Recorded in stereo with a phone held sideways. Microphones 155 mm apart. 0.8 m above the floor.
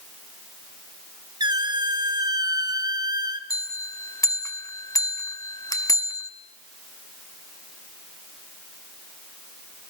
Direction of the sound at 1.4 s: 25° right (ahead or behind).